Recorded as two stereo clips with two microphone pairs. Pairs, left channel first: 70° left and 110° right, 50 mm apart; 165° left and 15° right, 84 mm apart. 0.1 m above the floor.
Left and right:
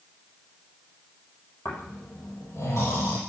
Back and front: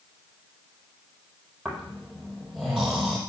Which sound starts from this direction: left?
Snoring, at 1.6 s.